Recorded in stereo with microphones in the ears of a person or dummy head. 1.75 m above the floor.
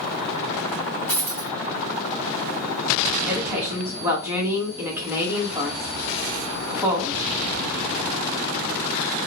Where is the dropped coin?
10° left (ahead or behind), 1.7 m.